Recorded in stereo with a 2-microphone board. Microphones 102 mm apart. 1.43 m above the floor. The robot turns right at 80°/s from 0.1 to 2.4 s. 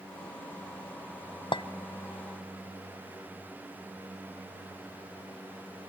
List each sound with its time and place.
1.5 s a clink: 50° left (ahead or behind), 0.5 m; by 1.6 s 55° left (ahead or behind), 0.5 m